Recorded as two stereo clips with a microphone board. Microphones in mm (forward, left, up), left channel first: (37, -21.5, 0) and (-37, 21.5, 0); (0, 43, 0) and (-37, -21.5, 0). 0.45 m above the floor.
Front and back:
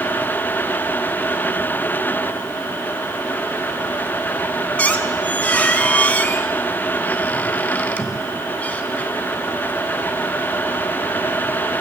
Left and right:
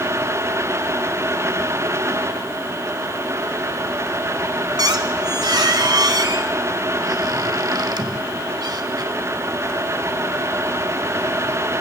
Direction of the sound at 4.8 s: 100° right.